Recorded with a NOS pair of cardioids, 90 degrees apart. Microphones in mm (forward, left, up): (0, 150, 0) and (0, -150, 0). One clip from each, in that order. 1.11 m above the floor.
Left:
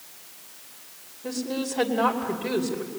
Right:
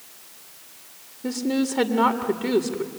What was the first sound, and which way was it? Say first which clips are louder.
A woman speaking: right 5 dB; 55° right.